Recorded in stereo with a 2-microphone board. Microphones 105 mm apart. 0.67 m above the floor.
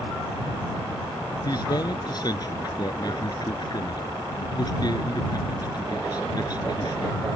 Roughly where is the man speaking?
Left.